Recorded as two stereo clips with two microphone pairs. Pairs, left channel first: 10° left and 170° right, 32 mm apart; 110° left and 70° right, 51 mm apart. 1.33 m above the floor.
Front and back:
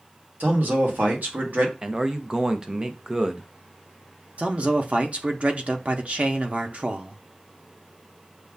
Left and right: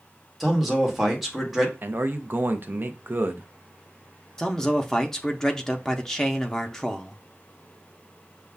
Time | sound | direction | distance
0.4 | a man speaking | 155° right | 1.3 m
1.8 | a man speaking | 115° right | 0.6 m
4.4 | a man speaking | 175° right | 0.6 m